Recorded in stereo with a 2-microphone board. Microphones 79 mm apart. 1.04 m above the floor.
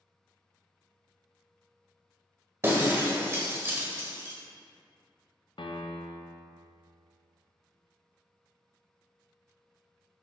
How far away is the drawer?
I don't hear a drawer.